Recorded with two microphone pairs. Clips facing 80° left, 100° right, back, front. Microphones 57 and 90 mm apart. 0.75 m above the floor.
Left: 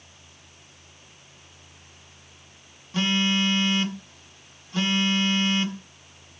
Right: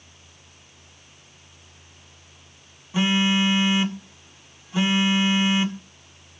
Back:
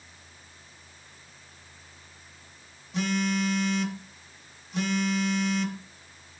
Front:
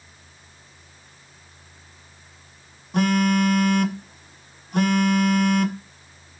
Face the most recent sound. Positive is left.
turn(degrees=-25)